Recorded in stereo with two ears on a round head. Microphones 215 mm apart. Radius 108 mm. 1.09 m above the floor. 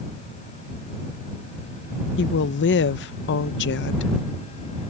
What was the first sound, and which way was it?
A woman speaking, 45° left (ahead or behind).